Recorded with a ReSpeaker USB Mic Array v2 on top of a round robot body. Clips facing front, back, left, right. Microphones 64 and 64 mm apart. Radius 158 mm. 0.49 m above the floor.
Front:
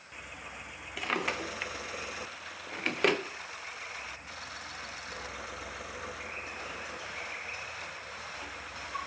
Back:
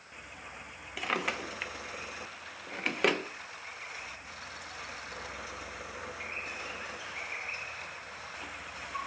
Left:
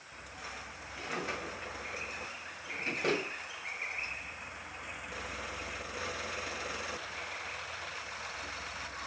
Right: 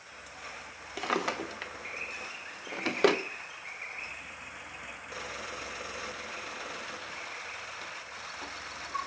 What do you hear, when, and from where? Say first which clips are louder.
1.0 s a drawer: even, right 7 dB; 95° right, 0.5 m